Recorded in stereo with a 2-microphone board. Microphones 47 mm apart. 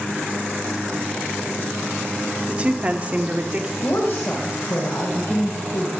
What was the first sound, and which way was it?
A woman speaking, 25° right (ahead or behind).